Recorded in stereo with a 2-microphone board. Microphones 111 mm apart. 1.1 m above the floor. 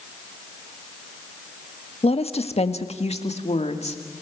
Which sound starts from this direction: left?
A woman speaking, at 2.0 s.